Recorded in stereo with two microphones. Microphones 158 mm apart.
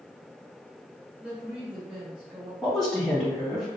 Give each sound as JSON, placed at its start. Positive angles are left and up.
{"t": 1.2, "sound": "a woman speaking", "side_deg": -10, "distance_m": 1.1}
{"t": 2.6, "sound": "a woman speaking", "side_deg": 0, "distance_m": 1.9}